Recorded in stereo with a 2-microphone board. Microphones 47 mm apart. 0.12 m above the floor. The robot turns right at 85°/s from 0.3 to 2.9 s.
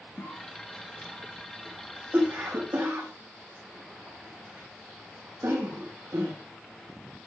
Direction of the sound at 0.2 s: 55° left (ahead or behind).